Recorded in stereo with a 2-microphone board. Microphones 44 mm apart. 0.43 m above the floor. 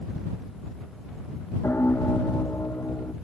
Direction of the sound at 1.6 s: 75° left (ahead or behind).